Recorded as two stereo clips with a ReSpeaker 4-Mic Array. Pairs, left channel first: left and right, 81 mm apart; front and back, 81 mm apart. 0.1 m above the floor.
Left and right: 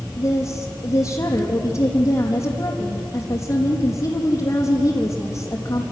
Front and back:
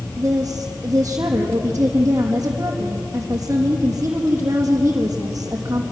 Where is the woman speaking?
120° left, 4 m.